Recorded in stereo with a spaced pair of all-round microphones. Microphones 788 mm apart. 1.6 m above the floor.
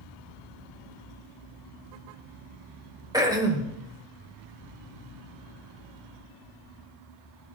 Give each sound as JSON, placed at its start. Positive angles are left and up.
{"t": 3.1, "sound": "throat clearing", "side_deg": -5, "distance_m": 1.4}